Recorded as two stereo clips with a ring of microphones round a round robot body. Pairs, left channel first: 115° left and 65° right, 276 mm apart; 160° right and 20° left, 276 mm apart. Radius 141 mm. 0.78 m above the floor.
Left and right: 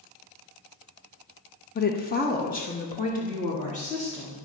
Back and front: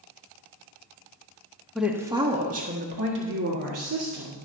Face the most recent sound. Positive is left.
turn(degrees=45)